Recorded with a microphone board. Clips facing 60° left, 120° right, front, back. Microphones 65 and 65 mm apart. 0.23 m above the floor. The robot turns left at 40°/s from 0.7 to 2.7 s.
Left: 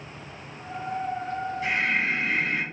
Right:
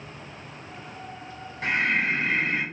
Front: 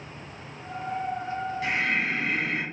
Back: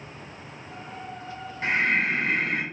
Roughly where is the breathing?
Behind right.